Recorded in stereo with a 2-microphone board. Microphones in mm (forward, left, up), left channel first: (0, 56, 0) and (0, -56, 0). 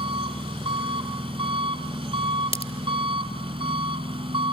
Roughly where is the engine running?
Right.